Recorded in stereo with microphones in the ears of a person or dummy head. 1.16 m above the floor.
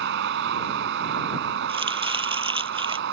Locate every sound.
0.0 s a vehicle: 55° right (ahead or behind)
1.7 s chopping: 30° right (ahead or behind)